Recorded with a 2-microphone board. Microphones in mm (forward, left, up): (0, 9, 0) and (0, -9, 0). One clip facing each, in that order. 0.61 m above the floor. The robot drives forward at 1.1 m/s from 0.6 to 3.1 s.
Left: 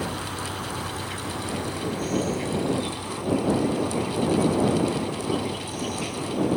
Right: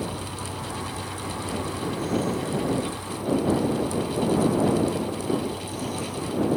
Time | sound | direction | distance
0.0 | an insect | 80° left | ?